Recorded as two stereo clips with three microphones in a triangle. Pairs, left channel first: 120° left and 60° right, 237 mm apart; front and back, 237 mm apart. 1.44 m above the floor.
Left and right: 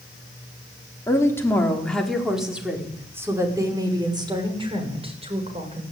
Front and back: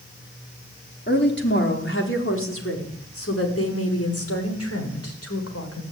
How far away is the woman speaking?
About 4.5 m.